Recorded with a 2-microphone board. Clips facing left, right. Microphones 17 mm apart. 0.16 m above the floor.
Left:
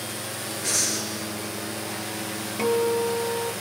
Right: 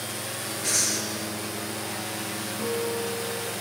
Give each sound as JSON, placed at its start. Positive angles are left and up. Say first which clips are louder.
{"t": 0.6, "sound": "breathing", "louder": "even", "side_deg": -10, "distance_m": 3.0}
{"t": 2.6, "sound": "a guitar", "louder": "left 7 dB", "side_deg": 65, "distance_m": 2.5}